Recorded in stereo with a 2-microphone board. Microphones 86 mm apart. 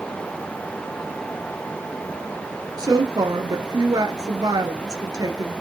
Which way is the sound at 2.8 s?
45° right (ahead or behind).